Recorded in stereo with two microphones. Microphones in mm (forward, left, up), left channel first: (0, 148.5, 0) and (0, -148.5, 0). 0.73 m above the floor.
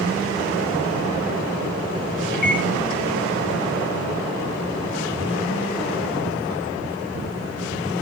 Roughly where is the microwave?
Centre.